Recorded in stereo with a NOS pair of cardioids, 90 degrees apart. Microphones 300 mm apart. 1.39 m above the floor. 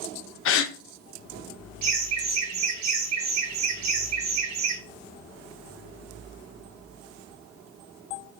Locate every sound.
0.5 s a gasp: 50° left, 0.6 m
1.8 s laughter: 65° right, 0.9 m